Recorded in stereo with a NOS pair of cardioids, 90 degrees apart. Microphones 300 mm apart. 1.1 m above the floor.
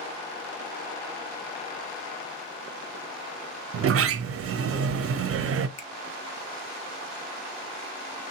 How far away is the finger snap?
About 1.1 m.